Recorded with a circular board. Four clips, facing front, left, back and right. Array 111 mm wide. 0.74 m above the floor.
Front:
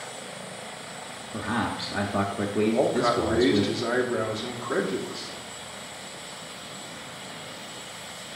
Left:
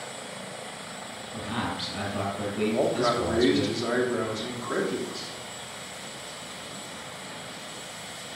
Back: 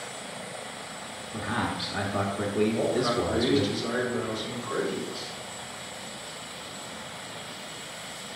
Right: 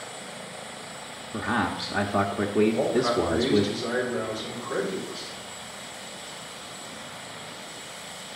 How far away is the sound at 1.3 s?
About 0.9 m.